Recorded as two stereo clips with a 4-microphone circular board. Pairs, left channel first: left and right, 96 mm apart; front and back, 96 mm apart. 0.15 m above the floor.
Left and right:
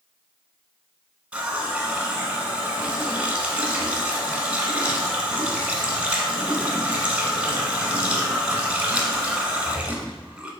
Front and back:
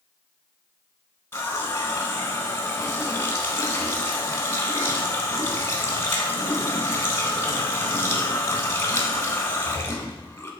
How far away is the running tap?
About 0.8 m.